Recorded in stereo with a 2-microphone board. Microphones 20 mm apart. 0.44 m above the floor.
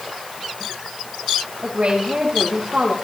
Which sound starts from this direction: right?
A woman speaking, at 1.6 s.